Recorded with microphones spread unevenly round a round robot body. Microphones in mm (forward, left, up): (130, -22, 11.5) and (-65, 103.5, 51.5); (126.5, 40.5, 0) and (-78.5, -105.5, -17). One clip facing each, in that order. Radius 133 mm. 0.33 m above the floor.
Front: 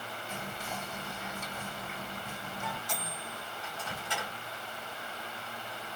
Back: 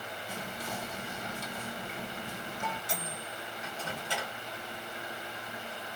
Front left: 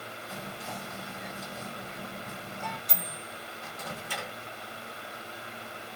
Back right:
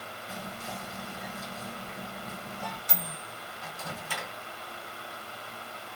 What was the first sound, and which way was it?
Whispering, 135° left.